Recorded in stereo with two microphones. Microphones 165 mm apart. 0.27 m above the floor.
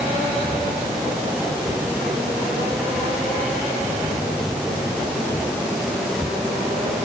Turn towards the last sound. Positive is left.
No sound to turn to.